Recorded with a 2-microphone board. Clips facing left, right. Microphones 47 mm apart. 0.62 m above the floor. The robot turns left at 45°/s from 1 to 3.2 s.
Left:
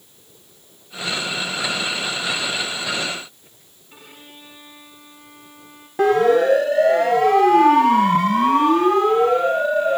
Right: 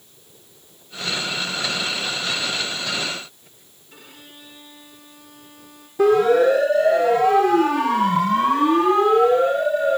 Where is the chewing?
No chewing in this recording.